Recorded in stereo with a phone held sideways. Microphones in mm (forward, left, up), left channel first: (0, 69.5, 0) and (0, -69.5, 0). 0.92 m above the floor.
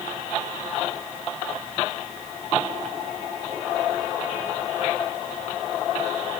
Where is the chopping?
No chopping in this recording.